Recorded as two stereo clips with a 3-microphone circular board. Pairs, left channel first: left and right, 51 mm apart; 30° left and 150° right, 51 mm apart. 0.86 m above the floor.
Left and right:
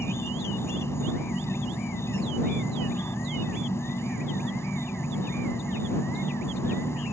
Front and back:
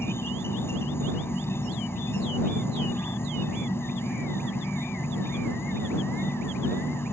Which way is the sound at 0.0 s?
65° left.